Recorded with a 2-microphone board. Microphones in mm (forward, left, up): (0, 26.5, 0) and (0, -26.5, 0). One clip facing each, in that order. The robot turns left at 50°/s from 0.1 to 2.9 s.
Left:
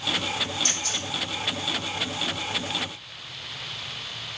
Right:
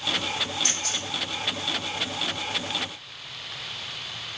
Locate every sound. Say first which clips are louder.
0.6 s a camera shutter: even; 70° right (ahead or behind), 2.5 m; by 1.1 s 65° right (ahead or behind), 2.5 m